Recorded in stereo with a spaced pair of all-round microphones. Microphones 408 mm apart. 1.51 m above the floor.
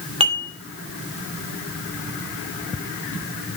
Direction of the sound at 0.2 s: 15° right (ahead or behind).